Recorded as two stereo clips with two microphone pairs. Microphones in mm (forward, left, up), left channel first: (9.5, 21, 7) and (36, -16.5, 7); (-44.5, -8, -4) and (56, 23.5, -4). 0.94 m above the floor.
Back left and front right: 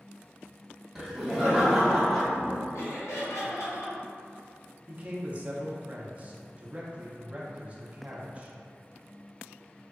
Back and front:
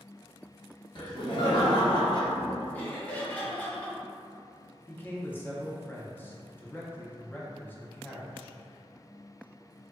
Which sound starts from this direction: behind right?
Laughter, at 0.9 s.